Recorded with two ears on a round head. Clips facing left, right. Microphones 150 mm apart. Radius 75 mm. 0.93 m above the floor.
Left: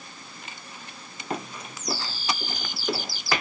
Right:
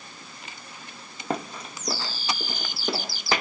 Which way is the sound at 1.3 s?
30° right (ahead or behind).